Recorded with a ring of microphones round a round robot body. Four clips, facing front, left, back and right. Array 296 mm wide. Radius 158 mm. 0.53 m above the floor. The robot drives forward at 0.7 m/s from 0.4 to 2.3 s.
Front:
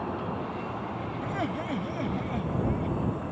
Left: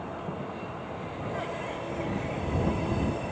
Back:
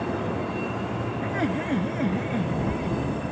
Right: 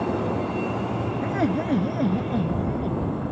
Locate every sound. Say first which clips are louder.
0.0 s a vehicle: right 11 dB, back 5 dB; 110° right
1.2 s laughter: right 10 dB, back 4 dB; 105° right; by 3.0 s 110° right